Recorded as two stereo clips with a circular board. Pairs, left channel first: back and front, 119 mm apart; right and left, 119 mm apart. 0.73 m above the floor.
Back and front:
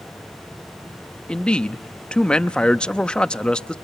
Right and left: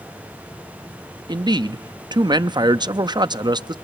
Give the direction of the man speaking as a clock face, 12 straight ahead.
9 o'clock.